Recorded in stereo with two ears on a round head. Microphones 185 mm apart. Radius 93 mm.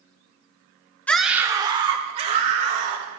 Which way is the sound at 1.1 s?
10° left (ahead or behind).